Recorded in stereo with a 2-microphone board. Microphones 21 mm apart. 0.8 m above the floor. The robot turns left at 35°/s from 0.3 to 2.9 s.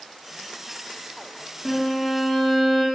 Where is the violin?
20° left, 1.4 m; by 2.8 s 20° right, 1.4 m.